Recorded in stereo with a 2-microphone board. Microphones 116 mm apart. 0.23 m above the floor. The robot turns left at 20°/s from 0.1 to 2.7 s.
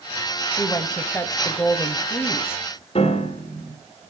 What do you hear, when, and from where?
0.6 s a woman speaking: 15° left (ahead or behind), 1.1 m; by 2.6 s 20° left (ahead or behind), 1.1 m
3.0 s a piano: 60° left (ahead or behind), 3 m